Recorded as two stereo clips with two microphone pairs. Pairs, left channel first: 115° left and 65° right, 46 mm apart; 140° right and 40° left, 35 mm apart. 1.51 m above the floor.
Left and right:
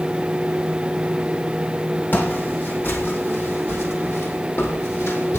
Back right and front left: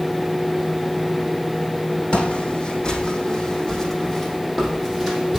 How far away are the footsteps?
About 4.5 m.